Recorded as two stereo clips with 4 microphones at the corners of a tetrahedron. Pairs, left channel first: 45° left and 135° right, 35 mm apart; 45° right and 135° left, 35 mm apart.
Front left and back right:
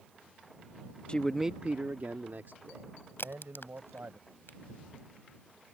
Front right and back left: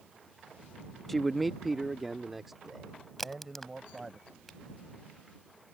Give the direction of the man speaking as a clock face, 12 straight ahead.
11 o'clock.